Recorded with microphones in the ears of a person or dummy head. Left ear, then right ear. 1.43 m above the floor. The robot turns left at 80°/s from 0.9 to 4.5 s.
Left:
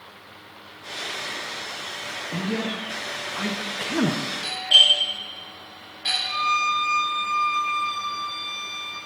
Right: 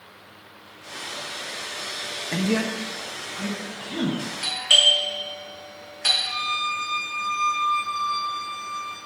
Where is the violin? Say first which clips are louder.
Left 3 dB; 10° right (ahead or behind), 1.1 m.